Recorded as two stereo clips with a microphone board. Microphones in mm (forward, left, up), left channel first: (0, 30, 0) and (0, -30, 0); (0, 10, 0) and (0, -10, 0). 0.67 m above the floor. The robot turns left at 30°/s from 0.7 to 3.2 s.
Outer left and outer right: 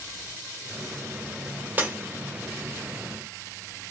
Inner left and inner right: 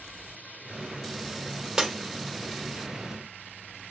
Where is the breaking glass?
30° right (ahead or behind), 1.4 m; by 2.0 s 25° right (ahead or behind), 1.4 m.